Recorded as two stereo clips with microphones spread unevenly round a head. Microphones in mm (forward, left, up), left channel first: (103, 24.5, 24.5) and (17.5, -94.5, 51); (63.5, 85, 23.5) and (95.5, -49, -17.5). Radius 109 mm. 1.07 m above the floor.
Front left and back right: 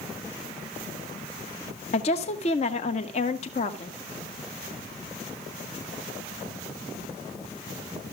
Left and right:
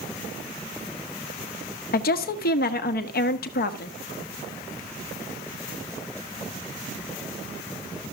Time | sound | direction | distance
1.9 | a woman speaking | 100° left | 1.2 m